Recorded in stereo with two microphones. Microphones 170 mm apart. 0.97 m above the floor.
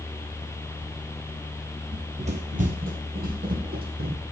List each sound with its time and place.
1.9 s running footsteps: 30° right (ahead or behind), 1.1 m; by 4.2 s 60° right (ahead or behind), 2.5 m